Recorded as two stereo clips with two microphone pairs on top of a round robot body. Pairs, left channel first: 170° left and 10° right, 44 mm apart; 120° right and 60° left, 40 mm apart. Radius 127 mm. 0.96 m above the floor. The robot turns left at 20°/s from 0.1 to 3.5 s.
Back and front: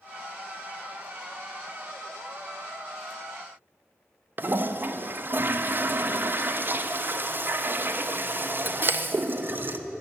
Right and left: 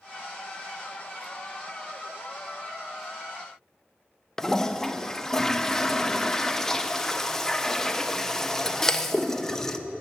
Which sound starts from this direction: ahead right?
A toilet flushing, at 4.4 s.